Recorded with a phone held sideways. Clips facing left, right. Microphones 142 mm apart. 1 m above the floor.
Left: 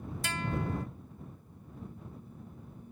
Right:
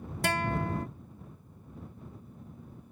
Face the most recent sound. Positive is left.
turn(degrees=-60)  # may be behind; listen again after turning